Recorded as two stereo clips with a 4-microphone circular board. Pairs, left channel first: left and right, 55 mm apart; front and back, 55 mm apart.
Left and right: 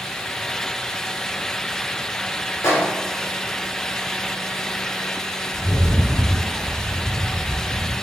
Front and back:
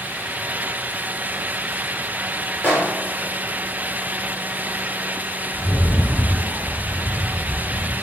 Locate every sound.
2.6 s a microwave: 55° left, 1.1 m
5.5 s a rattle: 20° left, 1.8 m